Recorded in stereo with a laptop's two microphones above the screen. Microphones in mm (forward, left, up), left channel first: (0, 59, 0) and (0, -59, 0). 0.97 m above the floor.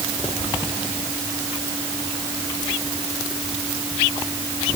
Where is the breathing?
No breathing in this recording.